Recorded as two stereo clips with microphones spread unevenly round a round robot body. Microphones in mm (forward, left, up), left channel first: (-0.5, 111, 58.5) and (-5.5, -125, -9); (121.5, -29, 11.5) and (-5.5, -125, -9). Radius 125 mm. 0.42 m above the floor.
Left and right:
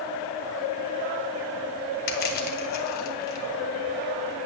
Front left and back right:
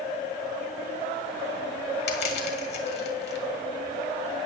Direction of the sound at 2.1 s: 30° left.